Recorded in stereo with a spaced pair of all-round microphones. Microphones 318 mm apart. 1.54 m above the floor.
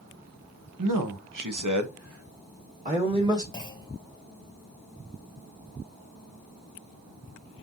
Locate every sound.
0.8 s a man speaking: 80° right, 1.1 m; by 3.4 s 10° right (ahead or behind), 1.5 m
3.5 s a clunk: 15° left (ahead or behind), 0.9 m